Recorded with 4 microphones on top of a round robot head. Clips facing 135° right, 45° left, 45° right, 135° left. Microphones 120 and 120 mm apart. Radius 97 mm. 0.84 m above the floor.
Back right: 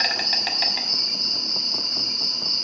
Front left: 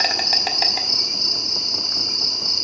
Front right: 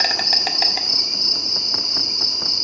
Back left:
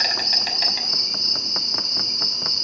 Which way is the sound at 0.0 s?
5° right.